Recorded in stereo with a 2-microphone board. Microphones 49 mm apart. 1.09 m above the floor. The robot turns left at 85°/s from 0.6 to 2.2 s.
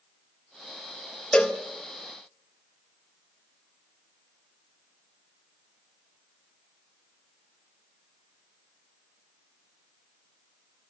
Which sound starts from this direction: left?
A cowbell, at 1.3 s.